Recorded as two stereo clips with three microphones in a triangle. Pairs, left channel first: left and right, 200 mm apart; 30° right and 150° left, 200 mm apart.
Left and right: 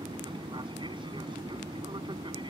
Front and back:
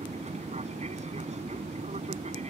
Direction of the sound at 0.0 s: 155° right.